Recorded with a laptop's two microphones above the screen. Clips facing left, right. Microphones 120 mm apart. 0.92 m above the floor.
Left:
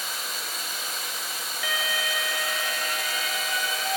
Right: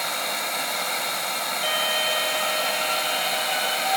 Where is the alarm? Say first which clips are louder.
Right 3 dB; 30° right (ahead or behind), 0.9 m.